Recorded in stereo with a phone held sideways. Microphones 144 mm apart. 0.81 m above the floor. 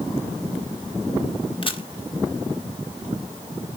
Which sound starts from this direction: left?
A camera shutter, at 1.6 s.